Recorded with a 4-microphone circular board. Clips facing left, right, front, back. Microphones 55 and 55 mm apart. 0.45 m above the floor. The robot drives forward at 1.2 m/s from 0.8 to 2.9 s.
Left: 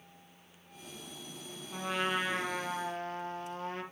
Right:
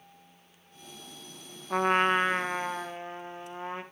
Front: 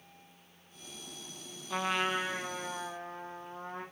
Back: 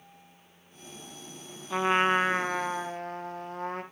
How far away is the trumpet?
About 0.6 m.